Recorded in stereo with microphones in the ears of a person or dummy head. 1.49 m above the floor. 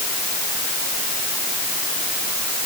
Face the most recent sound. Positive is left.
No sound to turn to.